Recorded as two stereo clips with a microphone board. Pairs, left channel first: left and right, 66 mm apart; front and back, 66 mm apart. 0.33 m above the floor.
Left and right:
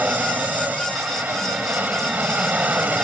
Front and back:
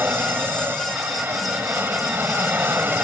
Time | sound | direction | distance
0.0 | an aircraft | 140° right | ?